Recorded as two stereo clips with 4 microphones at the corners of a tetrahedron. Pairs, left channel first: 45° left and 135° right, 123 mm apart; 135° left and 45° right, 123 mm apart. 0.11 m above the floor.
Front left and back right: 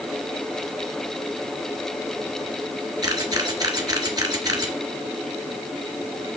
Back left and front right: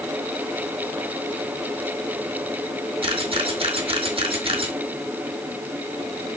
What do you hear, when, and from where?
3.0 s a camera shutter: 80° right, 1.9 m